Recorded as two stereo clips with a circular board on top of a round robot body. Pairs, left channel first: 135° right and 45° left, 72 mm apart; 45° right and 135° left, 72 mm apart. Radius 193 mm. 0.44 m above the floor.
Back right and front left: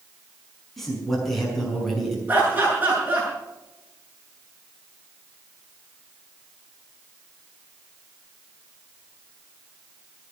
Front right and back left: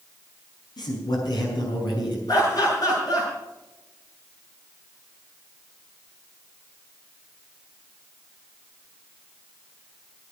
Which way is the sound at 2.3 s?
20° right.